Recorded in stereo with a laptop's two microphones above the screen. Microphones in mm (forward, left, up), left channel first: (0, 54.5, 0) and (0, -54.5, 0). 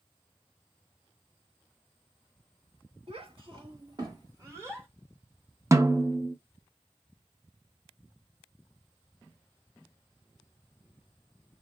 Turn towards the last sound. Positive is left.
turn(degrees=-30)  # may be behind; listen again after turning